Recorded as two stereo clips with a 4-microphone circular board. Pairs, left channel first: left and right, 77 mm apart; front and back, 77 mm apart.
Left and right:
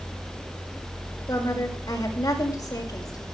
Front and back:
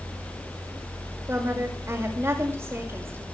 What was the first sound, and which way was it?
A woman speaking, 125° left.